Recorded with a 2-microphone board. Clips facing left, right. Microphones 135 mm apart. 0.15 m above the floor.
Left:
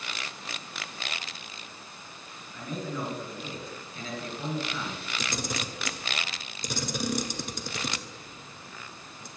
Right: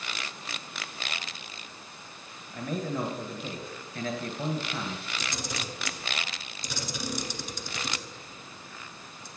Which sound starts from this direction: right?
A man speaking, at 2.5 s.